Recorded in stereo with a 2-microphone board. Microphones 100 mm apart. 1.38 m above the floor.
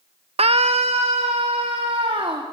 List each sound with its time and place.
0.4 s a scream: 80° right, 0.5 m; by 2.4 s 75° right (ahead or behind), 3.5 m